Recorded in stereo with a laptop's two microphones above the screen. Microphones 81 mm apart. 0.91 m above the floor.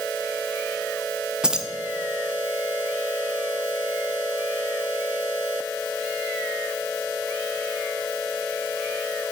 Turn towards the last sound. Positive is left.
turn(degrees=-10)  # may be behind; listen again after turning